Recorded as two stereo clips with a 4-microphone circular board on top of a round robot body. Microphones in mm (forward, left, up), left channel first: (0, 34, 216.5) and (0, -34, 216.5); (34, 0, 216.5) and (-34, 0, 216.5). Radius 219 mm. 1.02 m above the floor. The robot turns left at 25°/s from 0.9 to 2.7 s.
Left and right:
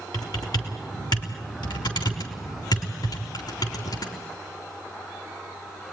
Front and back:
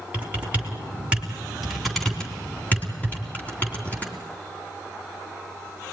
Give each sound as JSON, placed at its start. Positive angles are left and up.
{"t": 0.1, "sound": "typing on a keyboard", "azimuth_deg": 115, "distance_m": 3.5}